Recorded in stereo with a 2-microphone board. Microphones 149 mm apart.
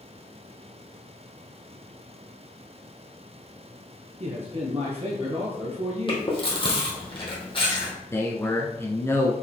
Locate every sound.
4.2 s a man speaking: 45° right (ahead or behind), 1.9 m
6.1 s chewing: 35° left (ahead or behind), 2.5 m
8.1 s a man speaking: 15° left (ahead or behind), 1.1 m